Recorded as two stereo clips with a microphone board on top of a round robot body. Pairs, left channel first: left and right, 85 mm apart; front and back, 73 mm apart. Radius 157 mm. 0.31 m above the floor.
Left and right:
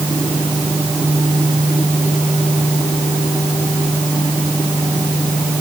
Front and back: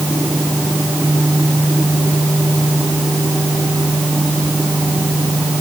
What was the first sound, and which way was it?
Only background noise.